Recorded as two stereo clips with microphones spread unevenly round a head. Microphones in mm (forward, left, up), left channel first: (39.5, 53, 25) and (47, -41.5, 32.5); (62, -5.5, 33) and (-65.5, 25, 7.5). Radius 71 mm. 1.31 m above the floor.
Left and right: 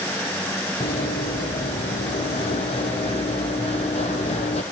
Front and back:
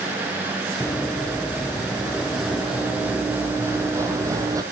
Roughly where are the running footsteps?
Ahead left.